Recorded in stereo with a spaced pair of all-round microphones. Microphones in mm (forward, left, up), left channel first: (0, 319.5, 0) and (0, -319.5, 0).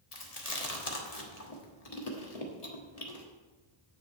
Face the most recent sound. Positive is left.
turn(degrees=65)  # may be behind; listen again after turning